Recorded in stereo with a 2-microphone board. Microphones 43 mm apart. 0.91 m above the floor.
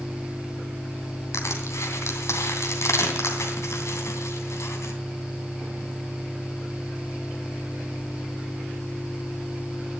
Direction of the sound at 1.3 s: 80° left.